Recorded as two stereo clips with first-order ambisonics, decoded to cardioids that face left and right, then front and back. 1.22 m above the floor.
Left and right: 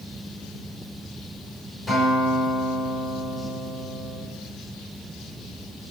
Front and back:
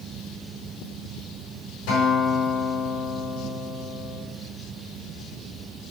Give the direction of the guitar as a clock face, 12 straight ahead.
12 o'clock.